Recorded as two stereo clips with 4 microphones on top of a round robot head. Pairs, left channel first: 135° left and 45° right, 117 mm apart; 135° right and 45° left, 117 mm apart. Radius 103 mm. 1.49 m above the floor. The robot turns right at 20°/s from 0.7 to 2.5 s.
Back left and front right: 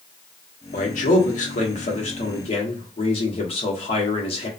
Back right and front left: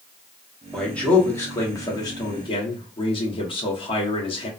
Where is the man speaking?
140° left, 1.0 m; by 4.5 s 175° left, 1.0 m.